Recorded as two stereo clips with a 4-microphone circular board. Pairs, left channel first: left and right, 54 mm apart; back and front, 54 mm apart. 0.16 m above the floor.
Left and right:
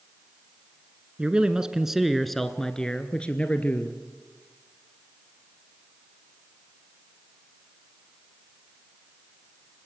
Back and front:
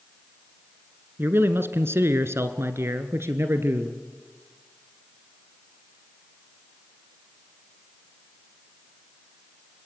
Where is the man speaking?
25° right, 1.5 m; by 4.0 s 30° left, 2 m.